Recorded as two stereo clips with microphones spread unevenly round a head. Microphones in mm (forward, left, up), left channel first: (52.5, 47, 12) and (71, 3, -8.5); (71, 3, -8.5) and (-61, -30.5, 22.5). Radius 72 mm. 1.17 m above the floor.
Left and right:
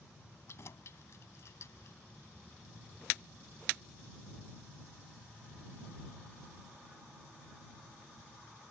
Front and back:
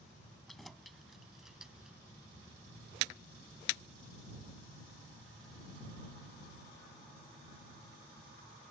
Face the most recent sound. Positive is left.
turn(degrees=110)